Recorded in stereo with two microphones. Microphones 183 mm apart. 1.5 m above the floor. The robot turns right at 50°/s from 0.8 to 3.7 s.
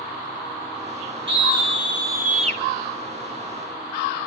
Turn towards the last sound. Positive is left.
turn(degrees=25)